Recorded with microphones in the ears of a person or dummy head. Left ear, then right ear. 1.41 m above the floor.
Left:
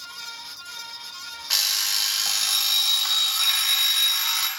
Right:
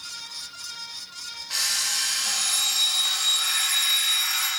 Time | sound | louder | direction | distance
1.5 | an alarm clock | left 3 dB | 35° left (ahead or behind) | 0.9 m